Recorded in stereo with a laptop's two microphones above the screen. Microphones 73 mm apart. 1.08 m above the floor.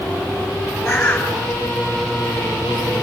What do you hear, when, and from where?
0.8 s a bird: 30° left (ahead or behind), 3 m